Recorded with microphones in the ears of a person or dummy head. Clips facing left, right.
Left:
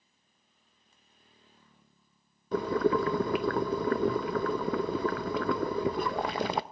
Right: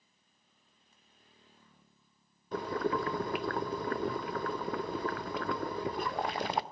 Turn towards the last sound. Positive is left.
turn(degrees=55)  # may be behind; listen again after turning